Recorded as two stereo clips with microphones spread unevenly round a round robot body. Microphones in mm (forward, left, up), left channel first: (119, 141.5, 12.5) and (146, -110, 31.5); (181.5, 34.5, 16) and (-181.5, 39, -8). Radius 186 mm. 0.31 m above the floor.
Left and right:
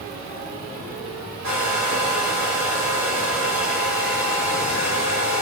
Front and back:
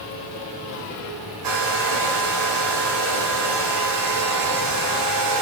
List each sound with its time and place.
1.4 s a hair dryer: 140° right, 6.5 m